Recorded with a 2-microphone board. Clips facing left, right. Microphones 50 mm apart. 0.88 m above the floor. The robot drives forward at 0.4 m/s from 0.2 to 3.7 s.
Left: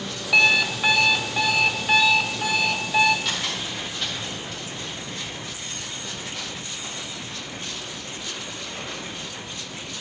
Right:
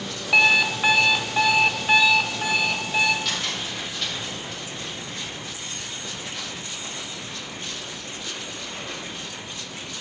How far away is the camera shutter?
About 4 m.